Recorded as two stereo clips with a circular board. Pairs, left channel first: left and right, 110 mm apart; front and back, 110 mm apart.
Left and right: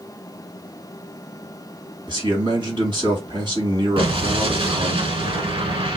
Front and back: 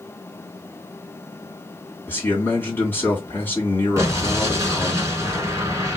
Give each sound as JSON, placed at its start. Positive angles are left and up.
{"t": 2.1, "sound": "a man speaking", "azimuth_deg": -70, "distance_m": 2.5}
{"t": 4.0, "sound": "an explosion", "azimuth_deg": -120, "distance_m": 1.1}